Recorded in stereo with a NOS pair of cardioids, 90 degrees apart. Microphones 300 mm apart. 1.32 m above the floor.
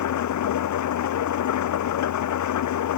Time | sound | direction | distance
0.0 | an engine running | 70° left | ?